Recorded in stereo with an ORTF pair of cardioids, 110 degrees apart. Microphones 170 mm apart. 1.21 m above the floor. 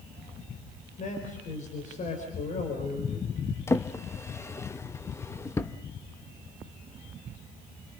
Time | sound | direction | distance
1.0 | a man speaking | 45° left | 5 m
3.7 | a drawer | 15° left | 0.9 m